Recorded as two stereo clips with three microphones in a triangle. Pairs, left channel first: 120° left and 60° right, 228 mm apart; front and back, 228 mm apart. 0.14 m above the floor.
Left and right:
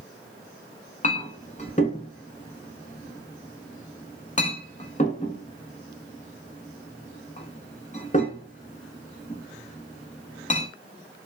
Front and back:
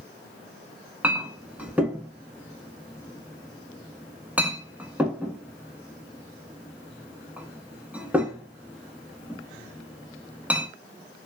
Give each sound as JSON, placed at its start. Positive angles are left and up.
{"t": 1.0, "sound": "a clink", "azimuth_deg": 100, "distance_m": 0.7}